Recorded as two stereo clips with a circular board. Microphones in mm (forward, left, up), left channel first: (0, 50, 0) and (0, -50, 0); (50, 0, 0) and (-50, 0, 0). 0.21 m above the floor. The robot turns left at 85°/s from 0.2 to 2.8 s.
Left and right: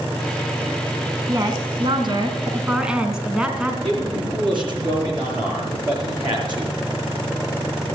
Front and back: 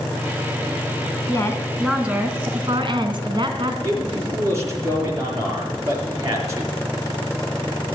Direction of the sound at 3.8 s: 125° right.